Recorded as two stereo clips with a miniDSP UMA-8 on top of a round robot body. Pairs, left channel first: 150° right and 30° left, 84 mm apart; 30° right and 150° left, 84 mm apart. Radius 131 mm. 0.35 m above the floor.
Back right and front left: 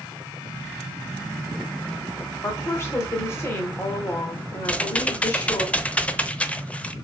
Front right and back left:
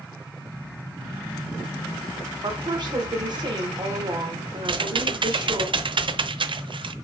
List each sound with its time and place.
2.4 s a woman speaking: 155° left, 1.8 m
4.7 s typing on a keyboard: 135° left, 0.8 m